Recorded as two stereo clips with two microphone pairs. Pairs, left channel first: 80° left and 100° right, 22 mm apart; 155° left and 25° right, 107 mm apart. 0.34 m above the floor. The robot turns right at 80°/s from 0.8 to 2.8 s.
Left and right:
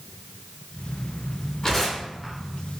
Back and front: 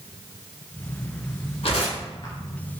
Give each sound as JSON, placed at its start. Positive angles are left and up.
{"t": 1.6, "sound": "tearing paper", "azimuth_deg": 135, "distance_m": 1.2}